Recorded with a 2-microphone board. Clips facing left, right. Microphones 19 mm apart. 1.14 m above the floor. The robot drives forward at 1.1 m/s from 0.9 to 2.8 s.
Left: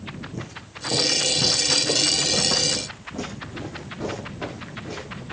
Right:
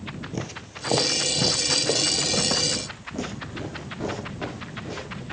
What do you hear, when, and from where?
0.3 s footsteps: 40° right (ahead or behind), 1.4 m; by 5.2 s 5° right (ahead or behind), 7 m